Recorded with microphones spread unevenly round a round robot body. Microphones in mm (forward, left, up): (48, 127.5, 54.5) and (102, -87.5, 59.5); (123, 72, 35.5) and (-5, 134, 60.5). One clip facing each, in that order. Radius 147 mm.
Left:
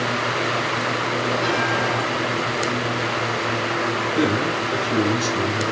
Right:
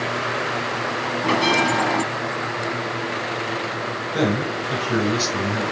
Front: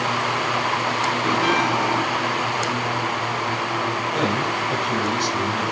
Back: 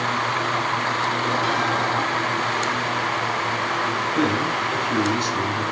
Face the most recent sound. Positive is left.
turn(degrees=-90)